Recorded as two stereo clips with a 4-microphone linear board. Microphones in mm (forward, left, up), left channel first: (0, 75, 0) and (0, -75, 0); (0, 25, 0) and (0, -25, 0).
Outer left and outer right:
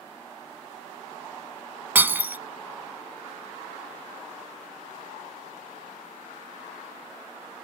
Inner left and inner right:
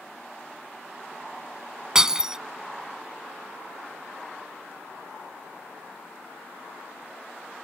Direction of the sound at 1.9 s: 15° right (ahead or behind).